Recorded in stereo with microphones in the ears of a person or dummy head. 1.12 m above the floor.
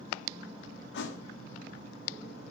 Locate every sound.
0.9 s a thud: 65° left (ahead or behind), 1.0 m